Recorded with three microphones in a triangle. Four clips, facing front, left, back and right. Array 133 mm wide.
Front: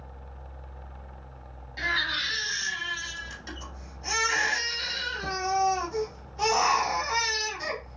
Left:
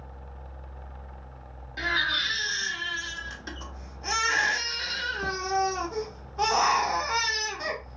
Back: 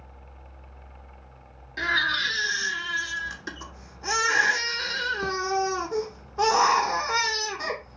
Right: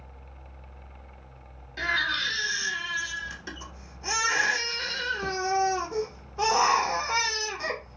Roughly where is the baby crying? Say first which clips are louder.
Even, back 4 dB; behind.